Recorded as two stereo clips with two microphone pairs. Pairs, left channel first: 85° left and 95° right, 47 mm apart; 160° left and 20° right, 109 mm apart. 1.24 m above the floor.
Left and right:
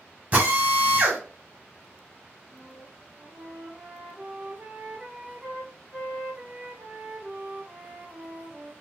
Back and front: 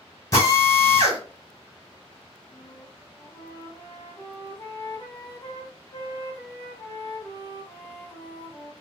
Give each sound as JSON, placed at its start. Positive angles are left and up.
{"t": 0.3, "sound": "a drill", "azimuth_deg": -145, "distance_m": 1.5}
{"t": 2.5, "sound": "a flute", "azimuth_deg": -145, "distance_m": 1.6}